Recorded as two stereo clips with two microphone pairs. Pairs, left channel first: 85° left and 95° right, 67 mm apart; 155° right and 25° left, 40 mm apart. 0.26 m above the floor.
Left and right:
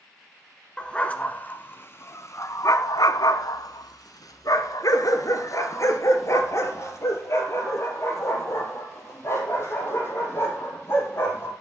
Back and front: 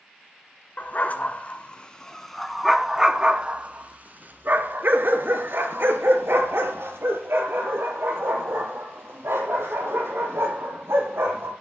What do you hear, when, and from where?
0.8 s a dog barking: 160° left, 1.4 m; by 11.5 s 35° left, 5 m